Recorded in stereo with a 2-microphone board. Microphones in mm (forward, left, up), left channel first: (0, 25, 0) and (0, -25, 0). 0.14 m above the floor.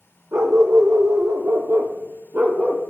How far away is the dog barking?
About 2.5 m.